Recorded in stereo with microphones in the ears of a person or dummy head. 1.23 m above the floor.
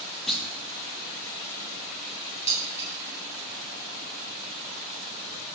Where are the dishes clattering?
35° left (ahead or behind), 1.1 m.